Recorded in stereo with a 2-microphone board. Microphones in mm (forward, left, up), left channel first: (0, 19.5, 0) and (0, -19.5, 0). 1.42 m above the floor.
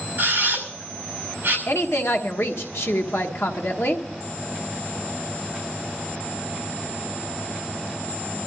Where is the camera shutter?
45° right (ahead or behind), 5.5 m.